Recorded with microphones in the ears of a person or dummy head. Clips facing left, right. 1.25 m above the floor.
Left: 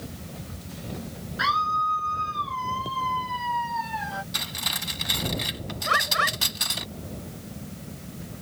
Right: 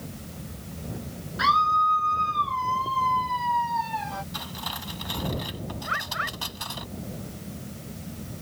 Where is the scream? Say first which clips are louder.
Right 4 dB; 5° left (ahead or behind).